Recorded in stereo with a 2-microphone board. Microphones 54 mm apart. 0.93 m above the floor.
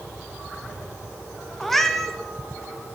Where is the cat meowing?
5° left (ahead or behind), 0.9 m.